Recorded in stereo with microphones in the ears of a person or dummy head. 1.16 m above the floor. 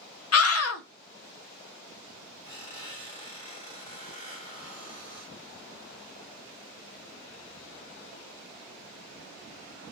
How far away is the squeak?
About 1.2 m.